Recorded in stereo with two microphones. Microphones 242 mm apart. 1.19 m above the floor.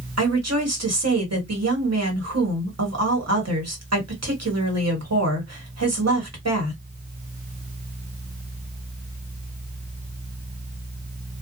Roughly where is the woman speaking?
Right.